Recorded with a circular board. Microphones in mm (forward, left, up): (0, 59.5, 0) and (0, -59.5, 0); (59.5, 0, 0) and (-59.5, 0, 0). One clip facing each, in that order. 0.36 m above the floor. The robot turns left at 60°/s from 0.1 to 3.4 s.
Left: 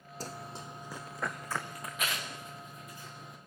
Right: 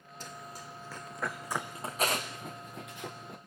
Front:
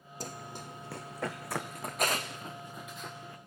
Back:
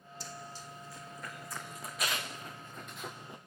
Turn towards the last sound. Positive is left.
turn(degrees=-115)